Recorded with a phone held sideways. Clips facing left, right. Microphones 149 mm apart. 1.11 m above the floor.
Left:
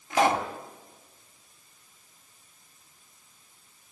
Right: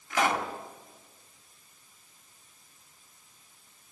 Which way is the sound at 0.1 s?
25° left (ahead or behind).